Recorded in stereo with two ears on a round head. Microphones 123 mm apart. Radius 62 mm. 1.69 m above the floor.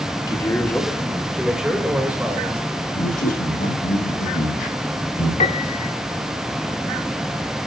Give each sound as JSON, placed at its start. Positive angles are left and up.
{"t": 0.3, "sound": "a man speaking", "side_deg": 30, "distance_m": 1.6}
{"t": 3.0, "sound": "a man speaking", "side_deg": 65, "distance_m": 8.5}
{"t": 5.4, "sound": "a piano", "side_deg": 45, "distance_m": 2.0}